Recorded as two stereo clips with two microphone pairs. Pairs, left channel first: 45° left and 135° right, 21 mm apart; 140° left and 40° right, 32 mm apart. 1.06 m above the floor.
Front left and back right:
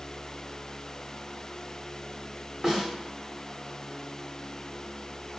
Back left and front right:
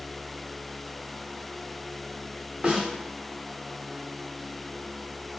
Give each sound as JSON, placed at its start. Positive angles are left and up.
{"t": 2.6, "sound": "a snare drum", "azimuth_deg": -85, "distance_m": 0.9}